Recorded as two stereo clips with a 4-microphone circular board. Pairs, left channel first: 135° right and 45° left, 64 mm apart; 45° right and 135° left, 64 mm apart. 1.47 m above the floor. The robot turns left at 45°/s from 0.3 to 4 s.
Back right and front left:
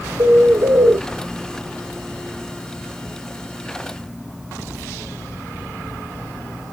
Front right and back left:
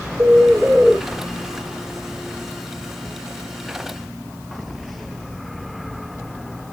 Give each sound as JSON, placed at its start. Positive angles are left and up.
{"t": 0.2, "sound": "a bird", "azimuth_deg": 80, "distance_m": 0.8}